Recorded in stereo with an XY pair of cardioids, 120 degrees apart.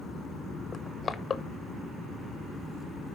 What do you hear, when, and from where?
0.7 s crushing: 25° left, 0.6 m